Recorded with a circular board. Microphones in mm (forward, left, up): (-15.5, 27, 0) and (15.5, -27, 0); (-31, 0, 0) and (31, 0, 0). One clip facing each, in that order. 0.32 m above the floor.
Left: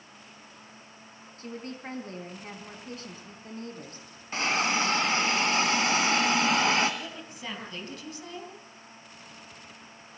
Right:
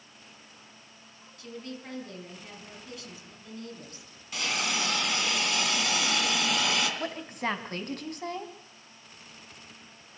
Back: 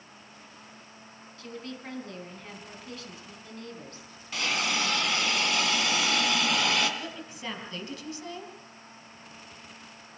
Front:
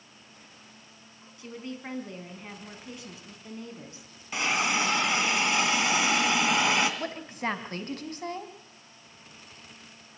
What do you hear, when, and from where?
1.4 s a woman speaking: 70° left, 3.5 m
4.3 s a hiss: 70° left, 2.5 m
7.0 s a woman speaking: 30° right, 3 m